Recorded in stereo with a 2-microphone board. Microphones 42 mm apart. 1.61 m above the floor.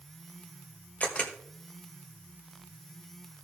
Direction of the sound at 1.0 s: 35° left (ahead or behind).